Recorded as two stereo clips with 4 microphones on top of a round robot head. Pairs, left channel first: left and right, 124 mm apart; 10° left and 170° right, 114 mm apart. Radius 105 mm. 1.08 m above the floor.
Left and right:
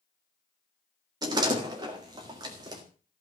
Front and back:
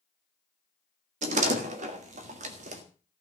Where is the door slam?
150° right, 1.8 m.